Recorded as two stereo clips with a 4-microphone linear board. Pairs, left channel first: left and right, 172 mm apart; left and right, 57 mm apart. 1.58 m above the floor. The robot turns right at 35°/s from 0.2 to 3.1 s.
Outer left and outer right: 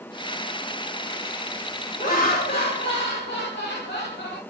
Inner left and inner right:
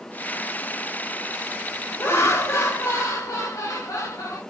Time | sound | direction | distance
2.0 | laughter | 50° left | 3 m